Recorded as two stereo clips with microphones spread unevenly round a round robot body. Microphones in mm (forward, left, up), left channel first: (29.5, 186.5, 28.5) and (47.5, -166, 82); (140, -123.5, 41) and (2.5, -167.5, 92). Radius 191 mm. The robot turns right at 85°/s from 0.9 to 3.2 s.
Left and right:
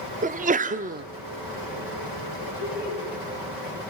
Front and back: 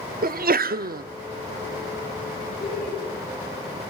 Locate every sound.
0.2 s a sneeze: 155° right, 1.0 m; by 1.0 s 145° right, 1.0 m
2.6 s laughter: 115° left, 5 m; by 3.0 s 150° left, 5 m